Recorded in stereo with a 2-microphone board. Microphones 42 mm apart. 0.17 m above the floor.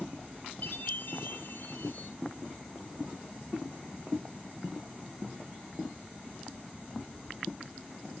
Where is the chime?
55° left (ahead or behind), 2.5 m.